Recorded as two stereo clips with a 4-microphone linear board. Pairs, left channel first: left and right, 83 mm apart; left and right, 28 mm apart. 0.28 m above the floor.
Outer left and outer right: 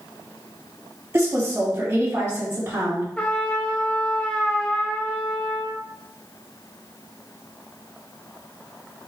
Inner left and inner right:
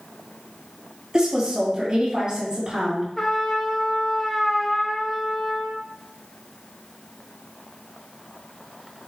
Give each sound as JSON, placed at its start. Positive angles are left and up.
{"t": 1.1, "sound": "a woman speaking", "side_deg": -20, "distance_m": 1.6}
{"t": 3.2, "sound": "a trumpet", "side_deg": 15, "distance_m": 0.5}